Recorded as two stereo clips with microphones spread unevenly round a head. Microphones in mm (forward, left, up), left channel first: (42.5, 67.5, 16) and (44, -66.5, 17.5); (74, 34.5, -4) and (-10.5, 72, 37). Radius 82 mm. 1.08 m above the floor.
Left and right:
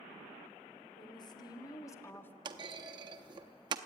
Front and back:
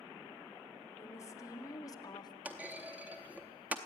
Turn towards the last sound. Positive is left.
turn(degrees=-145)